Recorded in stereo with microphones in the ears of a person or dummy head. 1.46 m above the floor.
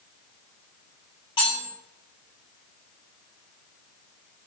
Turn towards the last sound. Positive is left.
turn(degrees=30)  # may be behind; listen again after turning